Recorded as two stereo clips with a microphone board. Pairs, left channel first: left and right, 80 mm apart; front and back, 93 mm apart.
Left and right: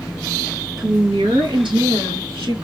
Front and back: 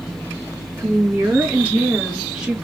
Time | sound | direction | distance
0.8 | a woman speaking | 115° right | 2.0 m